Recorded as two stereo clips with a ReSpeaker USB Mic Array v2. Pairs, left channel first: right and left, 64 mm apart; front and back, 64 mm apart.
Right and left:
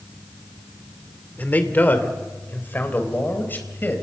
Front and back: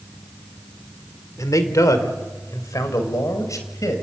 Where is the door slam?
No door slam in this recording.